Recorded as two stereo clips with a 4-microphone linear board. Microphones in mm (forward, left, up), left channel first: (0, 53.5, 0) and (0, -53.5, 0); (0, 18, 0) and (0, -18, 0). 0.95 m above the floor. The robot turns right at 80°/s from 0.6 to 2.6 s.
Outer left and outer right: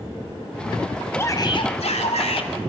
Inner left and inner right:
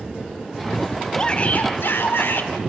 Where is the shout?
20° left, 3 m; by 2.5 s 125° left, 3 m.